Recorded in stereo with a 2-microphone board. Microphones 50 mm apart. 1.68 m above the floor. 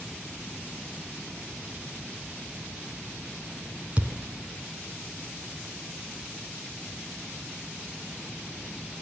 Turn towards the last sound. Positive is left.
turn(degrees=-30)  # may be behind; listen again after turning